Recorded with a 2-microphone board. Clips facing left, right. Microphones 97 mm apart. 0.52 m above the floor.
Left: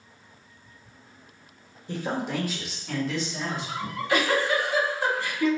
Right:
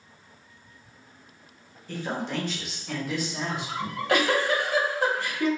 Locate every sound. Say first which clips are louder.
1.9 s a man speaking: left 2 dB; 20° left (ahead or behind), 1.2 m; by 3.7 s 20° right (ahead or behind), 1.8 m
3.8 s a giggle: right 2 dB; 70° right (ahead or behind), 2.0 m